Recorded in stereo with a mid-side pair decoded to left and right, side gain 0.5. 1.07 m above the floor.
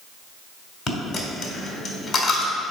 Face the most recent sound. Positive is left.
turn(degrees=55)